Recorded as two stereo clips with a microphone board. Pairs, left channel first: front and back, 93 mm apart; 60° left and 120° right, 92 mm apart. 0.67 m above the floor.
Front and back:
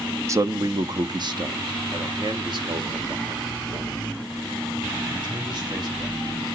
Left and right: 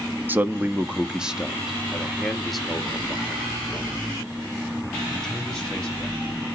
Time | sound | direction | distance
0.3 | a man speaking | 170° right | 0.7 m